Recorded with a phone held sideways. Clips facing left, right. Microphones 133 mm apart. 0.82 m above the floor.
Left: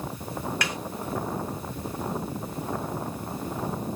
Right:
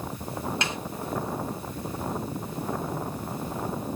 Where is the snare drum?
25° right (ahead or behind), 1.2 m.